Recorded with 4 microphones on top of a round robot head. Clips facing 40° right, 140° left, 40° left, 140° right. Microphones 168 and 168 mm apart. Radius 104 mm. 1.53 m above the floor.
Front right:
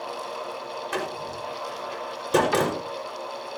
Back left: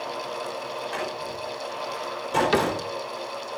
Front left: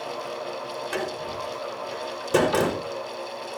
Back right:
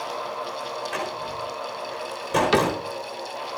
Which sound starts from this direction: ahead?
A door slam, at 0.9 s.